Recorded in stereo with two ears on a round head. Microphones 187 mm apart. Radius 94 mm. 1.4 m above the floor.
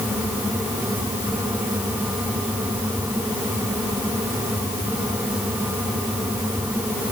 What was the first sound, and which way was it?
Only background noise.